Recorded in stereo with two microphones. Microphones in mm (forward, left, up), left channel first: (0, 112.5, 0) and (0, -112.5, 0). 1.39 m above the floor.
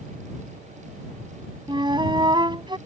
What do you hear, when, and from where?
1.7 s a flute: 20° right (ahead or behind)